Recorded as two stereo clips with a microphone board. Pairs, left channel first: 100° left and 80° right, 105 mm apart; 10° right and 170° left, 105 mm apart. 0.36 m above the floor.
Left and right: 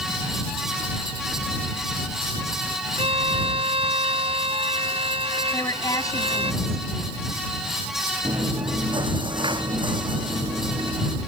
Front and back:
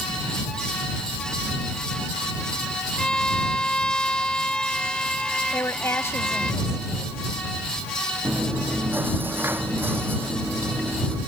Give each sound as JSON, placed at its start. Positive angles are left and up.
{"t": 3.0, "sound": "a violin", "azimuth_deg": -95}
{"t": 5.5, "sound": "a woman speaking", "azimuth_deg": 50}
{"t": 8.2, "sound": "chewing", "azimuth_deg": -120}